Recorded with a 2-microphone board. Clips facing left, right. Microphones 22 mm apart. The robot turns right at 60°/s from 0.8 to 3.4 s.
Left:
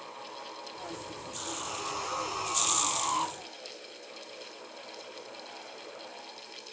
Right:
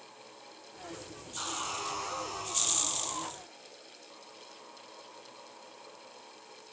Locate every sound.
1.4 s sawing: 30° right, 4 m; by 3.3 s 85° left, 4 m